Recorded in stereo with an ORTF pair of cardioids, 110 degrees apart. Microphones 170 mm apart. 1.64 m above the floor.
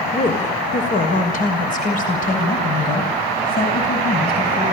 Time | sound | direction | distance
0.1 | a woman speaking | 40° left | 5 m